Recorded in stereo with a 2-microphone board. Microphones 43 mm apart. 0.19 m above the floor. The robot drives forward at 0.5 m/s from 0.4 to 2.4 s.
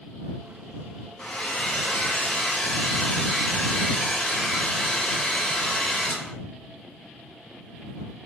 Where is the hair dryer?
30° left (ahead or behind), 1.9 m; by 6.3 s 25° left (ahead or behind), 2 m.